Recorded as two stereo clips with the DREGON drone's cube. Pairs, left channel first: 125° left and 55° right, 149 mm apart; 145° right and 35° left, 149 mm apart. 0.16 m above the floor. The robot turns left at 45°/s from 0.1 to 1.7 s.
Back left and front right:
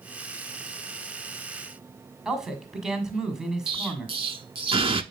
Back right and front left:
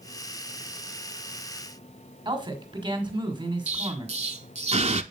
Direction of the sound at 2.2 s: 30° left.